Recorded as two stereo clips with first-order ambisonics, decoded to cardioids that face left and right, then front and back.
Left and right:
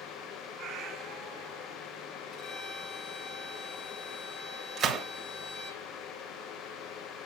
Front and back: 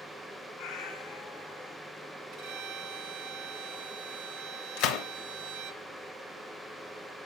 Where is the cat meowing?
35° right, 0.9 m.